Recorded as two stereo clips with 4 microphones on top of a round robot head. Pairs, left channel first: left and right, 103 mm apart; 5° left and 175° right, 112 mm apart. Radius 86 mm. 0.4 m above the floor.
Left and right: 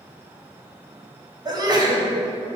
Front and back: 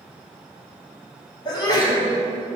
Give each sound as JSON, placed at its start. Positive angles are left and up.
{"t": 1.4, "sound": "a sneeze", "azimuth_deg": -50, "distance_m": 2.0}